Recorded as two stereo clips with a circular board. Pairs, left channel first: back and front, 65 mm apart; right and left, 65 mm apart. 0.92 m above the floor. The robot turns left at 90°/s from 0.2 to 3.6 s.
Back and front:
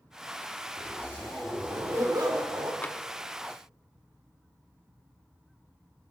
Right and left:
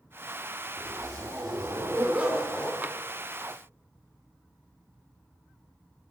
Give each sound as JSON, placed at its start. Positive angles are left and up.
{"t": 0.8, "sound": "a zipper", "azimuth_deg": 150, "distance_m": 2.5}
{"t": 2.8, "sound": "tapping", "azimuth_deg": 135, "distance_m": 0.5}